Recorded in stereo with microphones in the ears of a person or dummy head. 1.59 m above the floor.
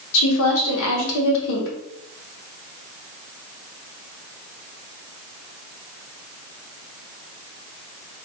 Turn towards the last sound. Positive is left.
turn(degrees=70)  # may be behind; listen again after turning